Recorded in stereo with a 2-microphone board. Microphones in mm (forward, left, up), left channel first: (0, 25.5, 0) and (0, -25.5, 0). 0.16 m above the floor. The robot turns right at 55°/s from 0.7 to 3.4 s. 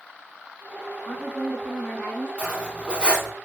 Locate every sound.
1.1 s a woman speaking: 5° left (ahead or behind), 1.1 m; by 2.3 s 25° left (ahead or behind), 1.1 m
2.4 s cutlery clinking: 25° right (ahead or behind), 0.6 m; by 3.3 s 10° right (ahead or behind), 0.6 m